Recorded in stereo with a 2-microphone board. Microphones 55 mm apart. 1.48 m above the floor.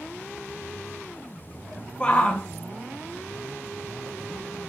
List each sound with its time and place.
2.0 s a shout: 20° left (ahead or behind), 1.3 m